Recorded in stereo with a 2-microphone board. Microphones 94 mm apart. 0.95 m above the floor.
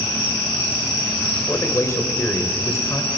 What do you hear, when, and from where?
1.3 s a man speaking: 30° left (ahead or behind), 5 m